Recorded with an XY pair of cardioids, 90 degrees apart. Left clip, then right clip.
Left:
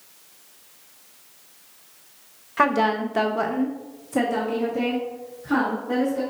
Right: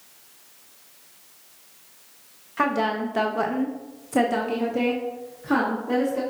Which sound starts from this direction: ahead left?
A woman speaking, at 2.6 s.